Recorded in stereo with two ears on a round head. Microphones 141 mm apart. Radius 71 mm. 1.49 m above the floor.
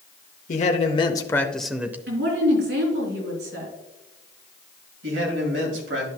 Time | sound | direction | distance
0.5 | a man speaking | 50° left (ahead or behind) | 0.8 m
2.1 | a woman speaking | 85° right | 3.5 m
5.0 | a man speaking | 85° right | 2.5 m